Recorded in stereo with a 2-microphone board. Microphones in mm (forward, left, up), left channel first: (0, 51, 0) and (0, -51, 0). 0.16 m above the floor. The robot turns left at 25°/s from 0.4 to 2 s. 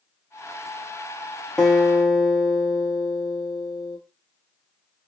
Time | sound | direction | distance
1.6 | a guitar | 5° left (ahead or behind) | 0.8 m